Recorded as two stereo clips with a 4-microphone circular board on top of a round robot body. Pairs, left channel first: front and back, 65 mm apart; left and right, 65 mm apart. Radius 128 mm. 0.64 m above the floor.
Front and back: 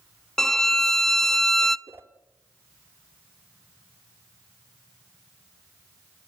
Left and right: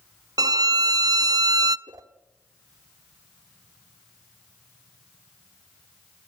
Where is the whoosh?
125° right, 1.5 m.